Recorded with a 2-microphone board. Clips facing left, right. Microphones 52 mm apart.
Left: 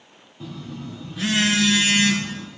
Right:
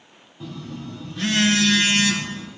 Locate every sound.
0.4 s a phone buzzing: 5° left (ahead or behind), 1.0 m